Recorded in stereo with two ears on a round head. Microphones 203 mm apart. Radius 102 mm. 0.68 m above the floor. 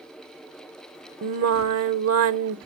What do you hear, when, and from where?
1.2 s singing: 70° right (ahead or behind), 0.9 m